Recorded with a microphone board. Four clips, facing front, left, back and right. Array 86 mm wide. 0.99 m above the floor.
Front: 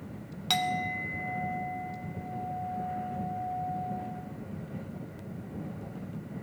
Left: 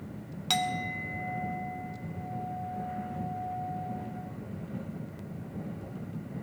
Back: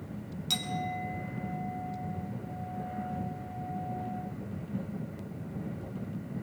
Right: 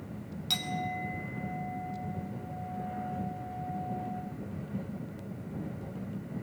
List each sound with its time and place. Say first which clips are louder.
0.5 s a clink: left 4 dB, front 5 dB; 40° left, 2 m